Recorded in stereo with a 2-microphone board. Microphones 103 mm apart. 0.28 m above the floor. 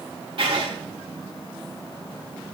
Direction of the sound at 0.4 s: 60° right (ahead or behind).